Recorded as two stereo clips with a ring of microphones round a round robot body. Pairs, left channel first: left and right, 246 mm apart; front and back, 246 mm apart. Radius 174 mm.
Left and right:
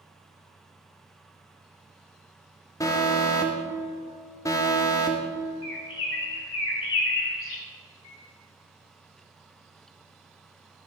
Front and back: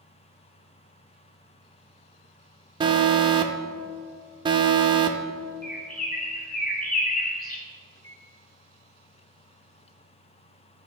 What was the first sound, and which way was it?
An alarm, 145° left.